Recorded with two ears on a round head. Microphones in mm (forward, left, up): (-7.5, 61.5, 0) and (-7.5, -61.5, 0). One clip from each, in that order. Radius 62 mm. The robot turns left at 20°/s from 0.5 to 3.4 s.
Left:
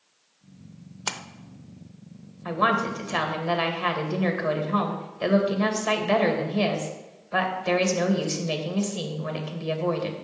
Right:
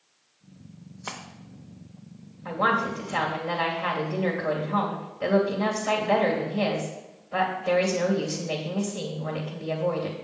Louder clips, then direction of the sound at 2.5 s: Left 1 dB; 65° left (ahead or behind).